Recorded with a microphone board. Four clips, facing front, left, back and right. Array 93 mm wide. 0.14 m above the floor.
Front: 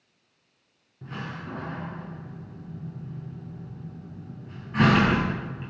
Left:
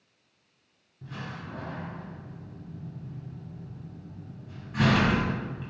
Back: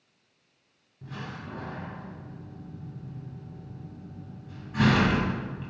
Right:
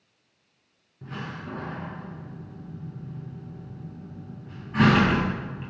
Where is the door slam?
45° right, 1.0 m.